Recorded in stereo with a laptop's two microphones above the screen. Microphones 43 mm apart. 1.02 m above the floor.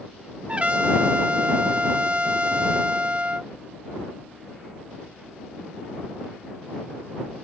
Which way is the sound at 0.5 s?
30° right (ahead or behind).